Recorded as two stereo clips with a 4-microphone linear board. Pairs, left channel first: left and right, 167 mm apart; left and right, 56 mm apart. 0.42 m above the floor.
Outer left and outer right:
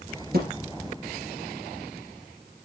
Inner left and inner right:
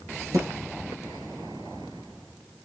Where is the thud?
70° right (ahead or behind), 3 m.